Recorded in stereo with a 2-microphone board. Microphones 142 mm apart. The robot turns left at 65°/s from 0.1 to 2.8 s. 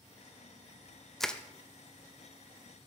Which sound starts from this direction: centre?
Crushing, at 1.2 s.